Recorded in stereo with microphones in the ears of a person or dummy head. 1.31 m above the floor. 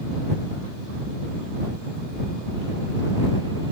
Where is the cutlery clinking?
I don't hear cutlery clinking.